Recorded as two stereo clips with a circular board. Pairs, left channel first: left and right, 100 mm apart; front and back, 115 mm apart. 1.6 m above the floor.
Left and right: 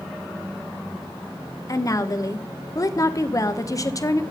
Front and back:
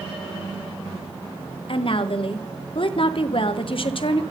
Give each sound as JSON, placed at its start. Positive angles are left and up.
{"t": 1.7, "sound": "a woman speaking", "azimuth_deg": 35, "distance_m": 0.9}